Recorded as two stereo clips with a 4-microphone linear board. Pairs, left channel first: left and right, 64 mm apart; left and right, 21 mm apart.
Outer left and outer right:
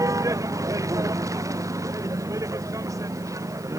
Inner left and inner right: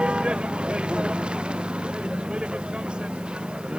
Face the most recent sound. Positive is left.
turn(degrees=-60)  # may be behind; listen again after turning